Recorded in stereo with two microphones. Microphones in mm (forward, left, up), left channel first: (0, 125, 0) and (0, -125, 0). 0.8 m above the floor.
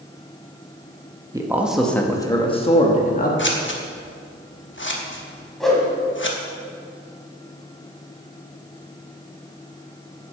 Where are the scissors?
50° left (ahead or behind), 1.0 m.